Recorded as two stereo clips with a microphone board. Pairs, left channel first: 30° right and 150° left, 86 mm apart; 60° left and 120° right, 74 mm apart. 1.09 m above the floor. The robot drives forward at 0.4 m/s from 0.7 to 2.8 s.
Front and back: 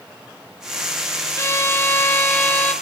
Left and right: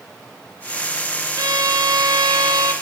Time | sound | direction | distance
1.4 | a violin | 90° right | 3 m